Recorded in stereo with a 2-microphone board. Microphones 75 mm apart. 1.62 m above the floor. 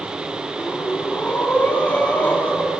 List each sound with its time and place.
0.6 s breathing: 25° left (ahead or behind), 2.5 m